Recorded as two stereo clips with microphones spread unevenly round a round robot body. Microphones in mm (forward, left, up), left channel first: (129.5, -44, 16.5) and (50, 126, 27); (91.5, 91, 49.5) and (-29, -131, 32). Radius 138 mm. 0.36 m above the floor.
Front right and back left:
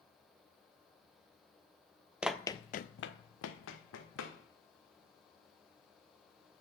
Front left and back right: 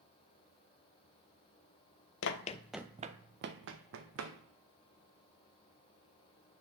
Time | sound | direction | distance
2.2 | running footsteps | 35° left | 0.5 m